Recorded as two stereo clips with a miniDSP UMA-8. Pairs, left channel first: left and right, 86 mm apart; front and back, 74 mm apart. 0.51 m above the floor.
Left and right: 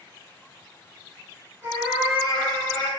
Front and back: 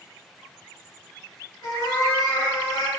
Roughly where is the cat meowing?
Ahead right.